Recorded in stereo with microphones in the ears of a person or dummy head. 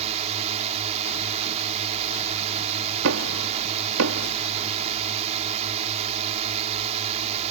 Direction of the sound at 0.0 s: 35° right (ahead or behind).